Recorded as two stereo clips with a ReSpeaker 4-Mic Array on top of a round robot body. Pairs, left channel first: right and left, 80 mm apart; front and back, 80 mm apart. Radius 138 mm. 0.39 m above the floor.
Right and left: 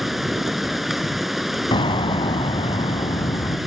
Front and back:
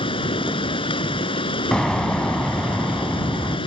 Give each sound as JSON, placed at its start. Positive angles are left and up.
{"t": 0.0, "sound": "running water", "azimuth_deg": 0}
{"t": 1.7, "sound": "an explosion", "azimuth_deg": -80}